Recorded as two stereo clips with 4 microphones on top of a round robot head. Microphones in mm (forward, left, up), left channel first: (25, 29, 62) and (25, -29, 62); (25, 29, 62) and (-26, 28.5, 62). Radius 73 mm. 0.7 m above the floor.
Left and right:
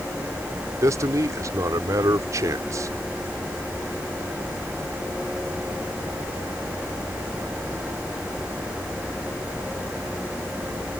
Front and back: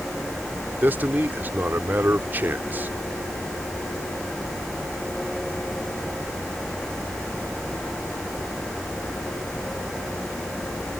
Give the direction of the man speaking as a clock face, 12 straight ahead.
4 o'clock.